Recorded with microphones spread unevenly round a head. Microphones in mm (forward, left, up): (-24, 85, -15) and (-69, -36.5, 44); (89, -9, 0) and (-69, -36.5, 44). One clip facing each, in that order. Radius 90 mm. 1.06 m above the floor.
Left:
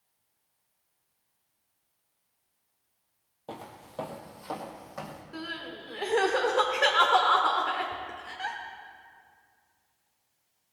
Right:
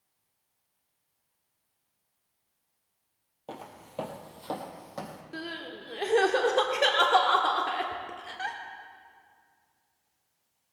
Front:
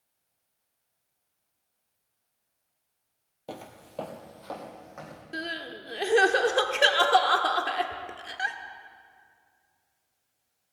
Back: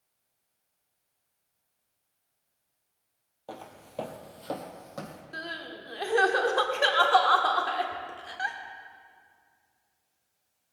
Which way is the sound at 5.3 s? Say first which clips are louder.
Right 1 dB, front 5 dB; 60° right.